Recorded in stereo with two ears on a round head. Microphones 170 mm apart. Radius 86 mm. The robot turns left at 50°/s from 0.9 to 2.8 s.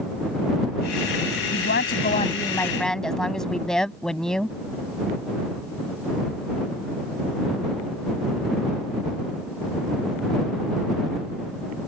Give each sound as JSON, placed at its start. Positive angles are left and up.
{"t": 1.5, "sound": "a woman speaking", "azimuth_deg": 65}